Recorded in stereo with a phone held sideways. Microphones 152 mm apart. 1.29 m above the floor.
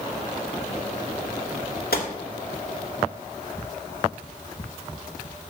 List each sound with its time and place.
1.9 s a gunshot: 85° left, 2 m